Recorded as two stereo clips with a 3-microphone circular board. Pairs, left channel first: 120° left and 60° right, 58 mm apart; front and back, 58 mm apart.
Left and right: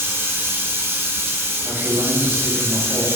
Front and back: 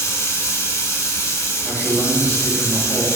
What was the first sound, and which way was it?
Running water, 20° right.